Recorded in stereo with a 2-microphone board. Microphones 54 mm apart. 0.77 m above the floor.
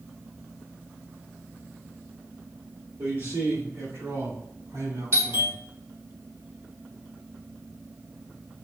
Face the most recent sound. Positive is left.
turn(degrees=-50)  # may be behind; listen again after turning